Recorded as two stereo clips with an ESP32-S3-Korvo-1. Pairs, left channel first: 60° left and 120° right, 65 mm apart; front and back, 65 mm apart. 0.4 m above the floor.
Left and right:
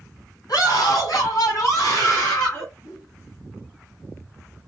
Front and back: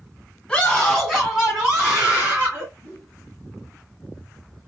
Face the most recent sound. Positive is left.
turn(degrees=95)